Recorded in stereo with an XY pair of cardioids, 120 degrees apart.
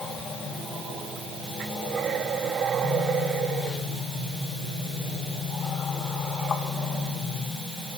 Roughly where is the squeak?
No squeak in this recording.